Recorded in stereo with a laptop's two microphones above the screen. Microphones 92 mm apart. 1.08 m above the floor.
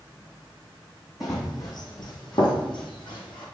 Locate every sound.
1.2 s running footsteps: 45° left (ahead or behind), 2.5 m; by 3.4 s 60° left (ahead or behind), 2.5 m